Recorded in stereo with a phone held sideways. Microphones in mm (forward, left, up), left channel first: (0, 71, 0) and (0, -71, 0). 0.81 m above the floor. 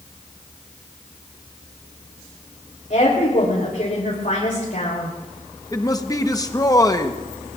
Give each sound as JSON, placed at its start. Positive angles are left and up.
{"t": 2.9, "sound": "a woman speaking", "side_deg": 65, "distance_m": 3.5}
{"t": 5.7, "sound": "a man speaking", "side_deg": 25, "distance_m": 1.0}